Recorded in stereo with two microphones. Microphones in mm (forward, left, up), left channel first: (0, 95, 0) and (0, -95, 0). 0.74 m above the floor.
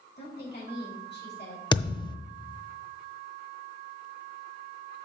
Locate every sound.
0.2 s a woman speaking: 60° left (ahead or behind), 4.5 m
1.7 s a thud: 25° left (ahead or behind), 0.6 m